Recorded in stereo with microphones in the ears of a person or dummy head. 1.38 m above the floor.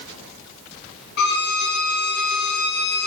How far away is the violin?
About 1.0 m.